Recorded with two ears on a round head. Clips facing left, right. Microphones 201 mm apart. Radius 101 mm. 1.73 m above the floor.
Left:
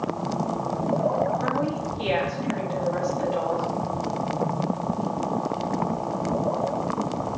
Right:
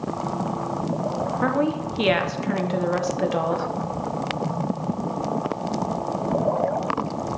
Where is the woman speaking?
70° right (ahead or behind), 1.2 m.